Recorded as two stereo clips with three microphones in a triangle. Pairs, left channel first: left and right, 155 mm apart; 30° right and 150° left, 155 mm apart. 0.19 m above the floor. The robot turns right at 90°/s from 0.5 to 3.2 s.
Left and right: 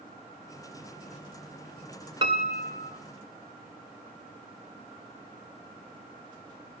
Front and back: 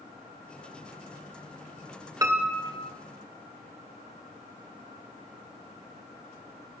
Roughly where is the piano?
Behind right.